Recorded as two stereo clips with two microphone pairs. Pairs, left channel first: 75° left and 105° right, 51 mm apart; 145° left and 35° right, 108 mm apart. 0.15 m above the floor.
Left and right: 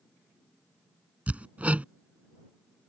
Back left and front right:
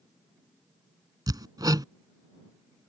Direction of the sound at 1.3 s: 55° right.